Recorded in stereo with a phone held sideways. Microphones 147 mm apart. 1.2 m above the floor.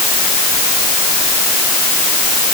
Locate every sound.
Only background noise.